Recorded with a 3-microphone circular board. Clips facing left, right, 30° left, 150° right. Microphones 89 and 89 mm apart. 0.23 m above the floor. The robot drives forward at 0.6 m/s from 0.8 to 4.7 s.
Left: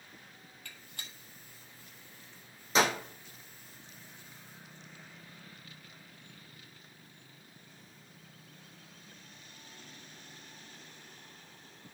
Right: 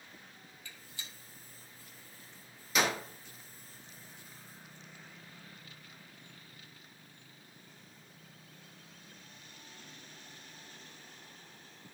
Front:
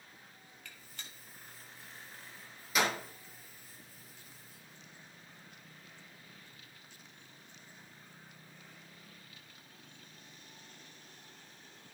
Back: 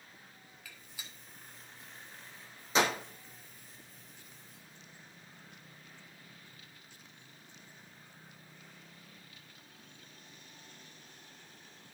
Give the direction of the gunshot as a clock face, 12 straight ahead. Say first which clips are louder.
Left 1 dB, even; 8 o'clock.